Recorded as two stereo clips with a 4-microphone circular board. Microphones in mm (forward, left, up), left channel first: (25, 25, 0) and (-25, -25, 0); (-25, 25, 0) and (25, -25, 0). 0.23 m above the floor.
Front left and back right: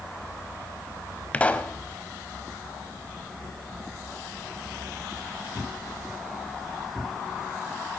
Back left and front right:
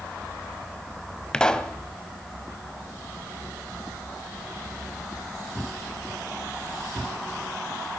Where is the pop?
75° left, 0.6 m.